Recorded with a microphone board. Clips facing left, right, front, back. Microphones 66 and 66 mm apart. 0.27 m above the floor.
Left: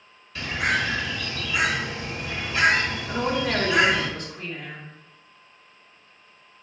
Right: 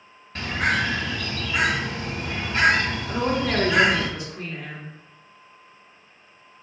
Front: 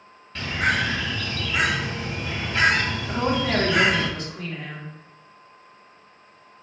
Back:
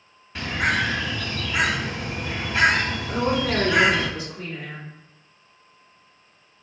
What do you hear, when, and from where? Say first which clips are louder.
0.3 s a bird: right 1 dB, even; 105° right, 1.6 m
3.1 s a woman speaking: right 1 dB, even; 10° right, 1.8 m